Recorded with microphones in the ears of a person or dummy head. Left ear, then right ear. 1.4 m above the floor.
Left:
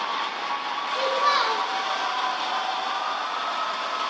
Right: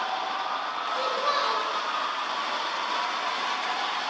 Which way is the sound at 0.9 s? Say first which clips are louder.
Left 5 dB; 50° left (ahead or behind).